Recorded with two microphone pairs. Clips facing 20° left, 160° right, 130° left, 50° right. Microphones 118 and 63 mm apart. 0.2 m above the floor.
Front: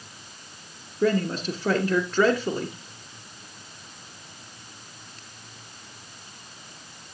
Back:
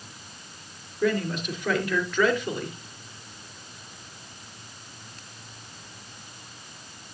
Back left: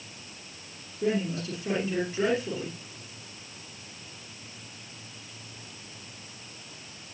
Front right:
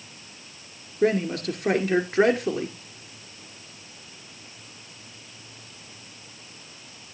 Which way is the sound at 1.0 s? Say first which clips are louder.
Front 2 dB, front right 6 dB; 30° right.